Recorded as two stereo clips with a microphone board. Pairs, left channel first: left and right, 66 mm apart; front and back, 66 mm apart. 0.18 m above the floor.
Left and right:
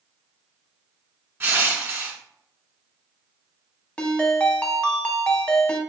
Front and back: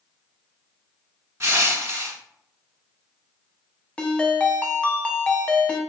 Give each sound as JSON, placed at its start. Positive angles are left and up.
{"t": 1.4, "sound": "crushing", "azimuth_deg": -140, "distance_m": 0.7}
{"t": 4.0, "sound": "a ringtone", "azimuth_deg": 40, "distance_m": 0.5}